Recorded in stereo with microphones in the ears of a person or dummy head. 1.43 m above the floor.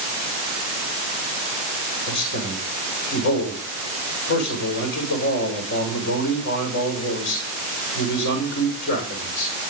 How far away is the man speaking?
About 7 m.